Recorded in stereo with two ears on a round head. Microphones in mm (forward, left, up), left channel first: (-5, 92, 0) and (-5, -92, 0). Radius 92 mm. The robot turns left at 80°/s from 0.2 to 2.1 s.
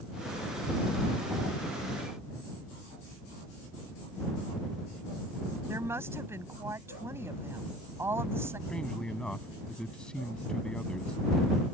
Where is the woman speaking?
15° right (ahead or behind).